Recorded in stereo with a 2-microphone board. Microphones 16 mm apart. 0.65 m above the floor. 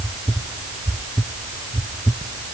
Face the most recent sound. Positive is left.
No sound to turn to.